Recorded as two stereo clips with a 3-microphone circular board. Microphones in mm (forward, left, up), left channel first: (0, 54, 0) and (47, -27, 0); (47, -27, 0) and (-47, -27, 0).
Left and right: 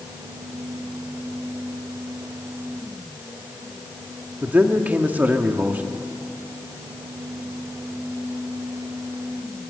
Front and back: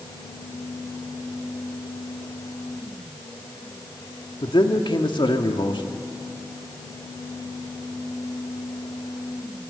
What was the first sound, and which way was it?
A man speaking, 10° left.